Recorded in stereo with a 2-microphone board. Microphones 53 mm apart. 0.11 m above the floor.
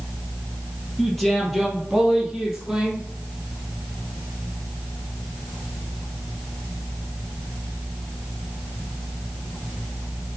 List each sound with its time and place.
1.0 s a man speaking: 5° left (ahead or behind), 3 m; by 3.1 s 5° right (ahead or behind), 4 m